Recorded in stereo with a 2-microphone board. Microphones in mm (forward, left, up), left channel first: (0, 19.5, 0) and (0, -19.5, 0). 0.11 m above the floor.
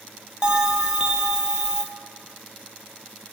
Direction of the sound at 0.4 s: 20° right (ahead or behind).